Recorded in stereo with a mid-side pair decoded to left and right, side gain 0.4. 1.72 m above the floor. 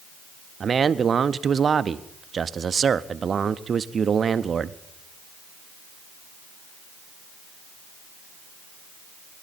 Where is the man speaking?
50° right, 0.6 m.